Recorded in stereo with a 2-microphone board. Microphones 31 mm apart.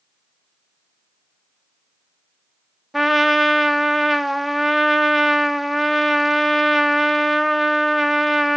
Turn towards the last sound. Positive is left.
turn(degrees=-5)  # may be behind; listen again after turning